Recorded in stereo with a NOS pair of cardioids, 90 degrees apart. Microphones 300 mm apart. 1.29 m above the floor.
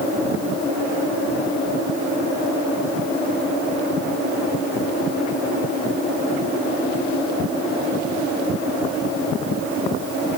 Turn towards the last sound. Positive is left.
No sound to turn to.